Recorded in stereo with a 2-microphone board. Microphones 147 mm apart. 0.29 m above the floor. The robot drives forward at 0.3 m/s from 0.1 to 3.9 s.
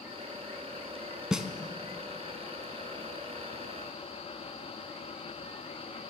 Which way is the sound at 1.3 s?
5° right (ahead or behind).